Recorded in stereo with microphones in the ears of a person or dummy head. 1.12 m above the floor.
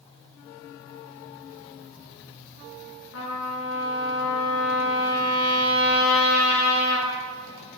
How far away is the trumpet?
About 6 m.